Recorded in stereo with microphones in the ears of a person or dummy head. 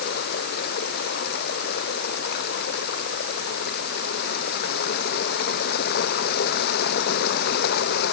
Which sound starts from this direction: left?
Running water, at 0.0 s.